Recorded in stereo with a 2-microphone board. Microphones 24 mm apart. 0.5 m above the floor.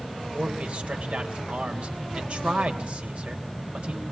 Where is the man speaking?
60° right (ahead or behind), 2.5 m.